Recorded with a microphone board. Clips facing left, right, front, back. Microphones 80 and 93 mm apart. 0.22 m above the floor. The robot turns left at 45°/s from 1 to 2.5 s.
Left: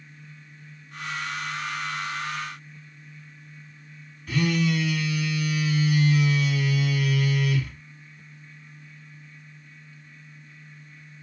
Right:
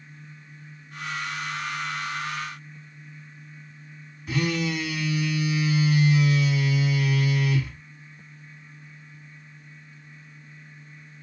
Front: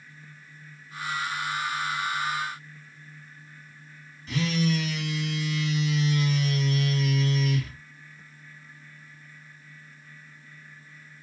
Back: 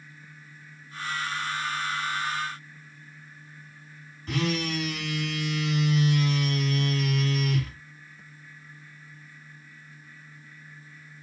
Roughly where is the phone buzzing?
Behind right.